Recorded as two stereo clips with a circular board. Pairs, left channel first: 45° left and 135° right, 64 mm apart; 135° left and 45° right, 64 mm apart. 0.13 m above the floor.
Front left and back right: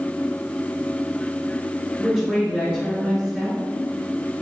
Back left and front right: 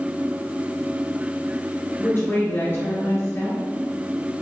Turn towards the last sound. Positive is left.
turn(degrees=150)